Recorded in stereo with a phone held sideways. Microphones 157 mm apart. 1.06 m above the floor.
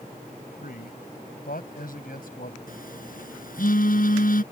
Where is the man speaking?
70° left (ahead or behind); by 2.6 s 65° left (ahead or behind).